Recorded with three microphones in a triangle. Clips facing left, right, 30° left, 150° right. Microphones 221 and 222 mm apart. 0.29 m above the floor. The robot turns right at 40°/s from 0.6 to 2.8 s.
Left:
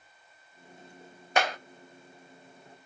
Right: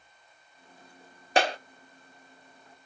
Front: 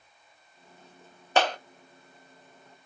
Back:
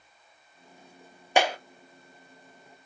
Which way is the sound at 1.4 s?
80° right.